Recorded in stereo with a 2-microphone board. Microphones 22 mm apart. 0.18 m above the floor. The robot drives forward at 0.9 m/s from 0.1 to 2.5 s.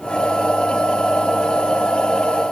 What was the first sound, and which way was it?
Only background noise.